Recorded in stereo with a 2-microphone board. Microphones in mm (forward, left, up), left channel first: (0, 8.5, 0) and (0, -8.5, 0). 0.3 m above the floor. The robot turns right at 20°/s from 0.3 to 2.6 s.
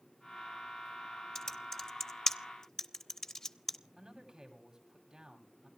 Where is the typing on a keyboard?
25° left (ahead or behind), 0.7 m; by 3.8 s 30° left (ahead or behind), 0.7 m.